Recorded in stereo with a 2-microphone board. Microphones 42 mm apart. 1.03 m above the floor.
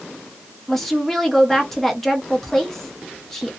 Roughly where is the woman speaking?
Centre.